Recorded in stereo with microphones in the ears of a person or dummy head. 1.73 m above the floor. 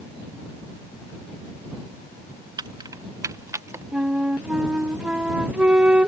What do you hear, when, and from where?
2.6 s keys jangling: 20° right (ahead or behind); by 3.8 s 15° right (ahead or behind)
3.9 s a flute: 5° right (ahead or behind)